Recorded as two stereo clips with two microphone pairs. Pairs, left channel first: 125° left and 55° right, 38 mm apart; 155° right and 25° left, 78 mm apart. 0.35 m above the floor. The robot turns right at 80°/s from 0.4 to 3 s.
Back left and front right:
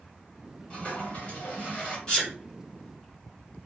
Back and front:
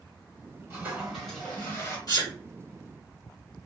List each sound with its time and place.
0.7 s a toilet flushing: 75° left, 2 m; by 2.0 s 175° left, 2 m
2.1 s a sneeze: 165° right, 3 m; by 2.4 s 145° right, 3 m